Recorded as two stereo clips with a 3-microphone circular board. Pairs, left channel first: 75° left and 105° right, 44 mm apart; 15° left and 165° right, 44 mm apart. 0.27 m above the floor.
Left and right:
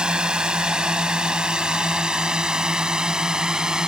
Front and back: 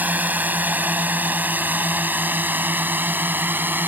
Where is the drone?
160° right; by 3.9 s 170° right.